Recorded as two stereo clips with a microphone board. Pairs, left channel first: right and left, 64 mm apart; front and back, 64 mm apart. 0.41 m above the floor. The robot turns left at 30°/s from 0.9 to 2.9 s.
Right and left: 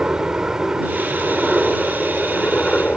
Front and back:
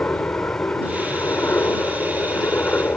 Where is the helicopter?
35° left; by 3.0 s 25° right.